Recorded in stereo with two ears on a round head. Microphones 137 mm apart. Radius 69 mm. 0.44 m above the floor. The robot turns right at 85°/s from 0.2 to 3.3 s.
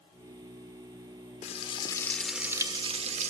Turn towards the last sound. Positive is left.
turn(degrees=-95)